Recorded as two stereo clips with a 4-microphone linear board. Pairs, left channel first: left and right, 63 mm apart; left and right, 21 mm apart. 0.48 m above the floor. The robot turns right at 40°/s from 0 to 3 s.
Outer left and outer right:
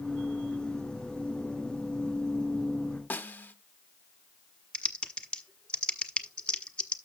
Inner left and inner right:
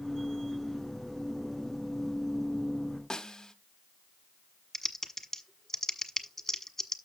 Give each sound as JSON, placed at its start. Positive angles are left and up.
{"t": 3.1, "sound": "a snare drum", "side_deg": 30, "distance_m": 1.1}
{"t": 4.7, "sound": "typing on a keyboard", "side_deg": 15, "distance_m": 1.3}